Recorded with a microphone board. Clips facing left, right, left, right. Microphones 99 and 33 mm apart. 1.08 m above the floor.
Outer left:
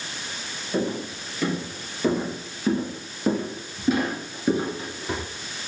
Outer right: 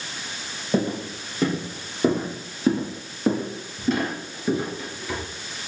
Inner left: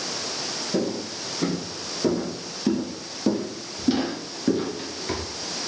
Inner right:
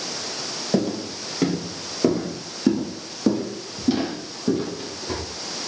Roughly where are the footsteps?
Right.